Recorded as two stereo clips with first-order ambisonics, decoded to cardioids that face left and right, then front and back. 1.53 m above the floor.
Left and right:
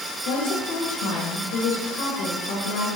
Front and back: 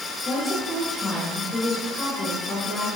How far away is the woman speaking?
About 3 m.